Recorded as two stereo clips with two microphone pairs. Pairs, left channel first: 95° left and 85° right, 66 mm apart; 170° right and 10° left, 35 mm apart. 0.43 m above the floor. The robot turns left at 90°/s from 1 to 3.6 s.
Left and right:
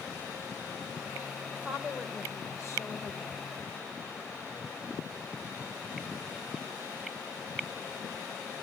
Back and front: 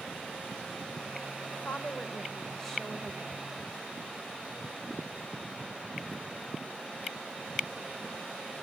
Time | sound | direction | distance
1.5 | a woman speaking | 145° right | 1.6 m